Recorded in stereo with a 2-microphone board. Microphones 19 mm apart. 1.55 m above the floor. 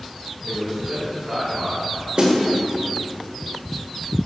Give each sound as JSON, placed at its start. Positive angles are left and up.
{"t": 0.4, "sound": "a man speaking", "side_deg": -55, "distance_m": 2.5}
{"t": 2.2, "sound": "a snare drum", "side_deg": -55, "distance_m": 1.8}